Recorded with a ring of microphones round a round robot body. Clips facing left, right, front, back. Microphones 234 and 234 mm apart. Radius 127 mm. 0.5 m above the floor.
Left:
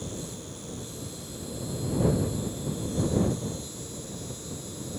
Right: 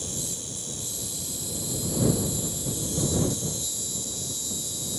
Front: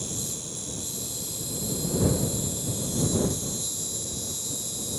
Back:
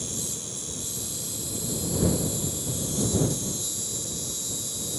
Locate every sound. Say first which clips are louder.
0.0 s an insect: left 1 dB, even; 105° right